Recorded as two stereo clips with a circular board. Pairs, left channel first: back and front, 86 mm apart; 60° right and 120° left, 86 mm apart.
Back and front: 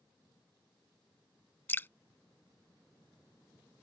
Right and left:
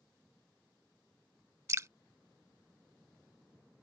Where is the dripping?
135° left.